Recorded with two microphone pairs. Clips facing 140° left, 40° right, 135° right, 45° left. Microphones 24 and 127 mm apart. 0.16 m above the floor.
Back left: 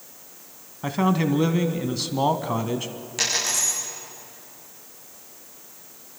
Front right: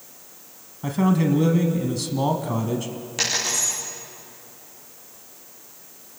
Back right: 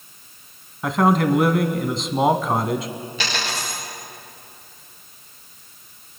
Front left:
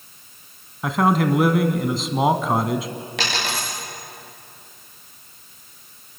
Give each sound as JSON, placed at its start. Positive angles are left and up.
{"t": 0.8, "sound": "a man speaking", "azimuth_deg": 125, "distance_m": 1.0}
{"t": 3.2, "sound": "a dropped coin", "azimuth_deg": 40, "distance_m": 9.0}